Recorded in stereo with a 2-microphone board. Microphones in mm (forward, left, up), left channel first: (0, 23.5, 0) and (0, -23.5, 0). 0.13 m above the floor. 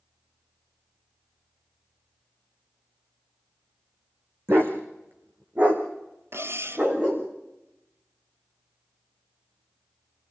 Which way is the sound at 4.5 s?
50° right (ahead or behind).